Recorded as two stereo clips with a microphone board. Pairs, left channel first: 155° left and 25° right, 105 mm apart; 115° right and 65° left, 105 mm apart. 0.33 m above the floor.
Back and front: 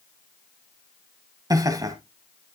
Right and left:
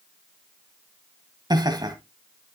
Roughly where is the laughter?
Ahead left.